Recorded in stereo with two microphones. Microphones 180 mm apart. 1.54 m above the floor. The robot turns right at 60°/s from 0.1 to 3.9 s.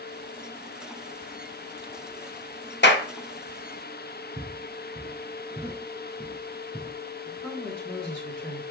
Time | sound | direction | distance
2.8 | a clap | 65° left (ahead or behind) | 1.0 m
4.4 | footsteps | 35° right (ahead or behind) | 1.8 m
7.2 | a woman speaking | 5° left (ahead or behind) | 2.5 m